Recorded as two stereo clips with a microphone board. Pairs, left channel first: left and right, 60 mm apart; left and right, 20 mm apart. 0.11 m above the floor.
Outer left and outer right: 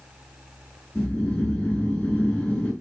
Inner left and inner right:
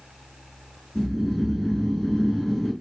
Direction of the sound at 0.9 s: 20° left (ahead or behind).